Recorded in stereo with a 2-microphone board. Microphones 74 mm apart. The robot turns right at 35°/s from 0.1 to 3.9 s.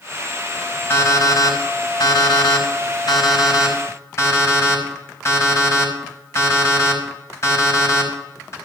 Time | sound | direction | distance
0.9 | an alarm clock | 30° left (ahead or behind) | 5 m